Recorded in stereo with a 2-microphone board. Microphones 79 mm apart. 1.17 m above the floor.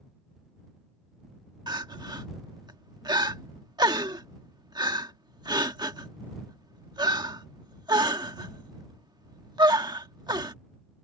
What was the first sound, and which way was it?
Crying, 65° right (ahead or behind).